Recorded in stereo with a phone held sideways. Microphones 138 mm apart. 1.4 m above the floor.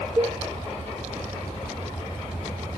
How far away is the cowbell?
About 1.1 m.